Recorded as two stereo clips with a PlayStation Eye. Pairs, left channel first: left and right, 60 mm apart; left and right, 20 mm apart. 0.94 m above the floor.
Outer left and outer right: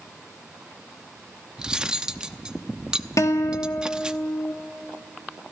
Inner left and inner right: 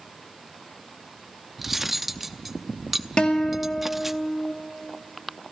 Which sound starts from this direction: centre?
Cutlery clinking, at 1.6 s.